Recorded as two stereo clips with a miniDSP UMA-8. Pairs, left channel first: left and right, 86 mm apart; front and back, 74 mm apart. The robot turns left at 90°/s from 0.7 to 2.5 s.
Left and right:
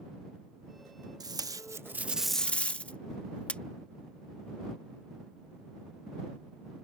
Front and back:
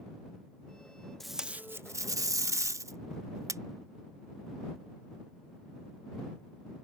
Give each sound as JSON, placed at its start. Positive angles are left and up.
{"t": 1.2, "sound": "tape being pulled", "azimuth_deg": -85}